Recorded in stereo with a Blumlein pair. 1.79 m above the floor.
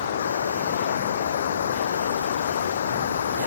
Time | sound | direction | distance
0.0 | running water | 65° left | ?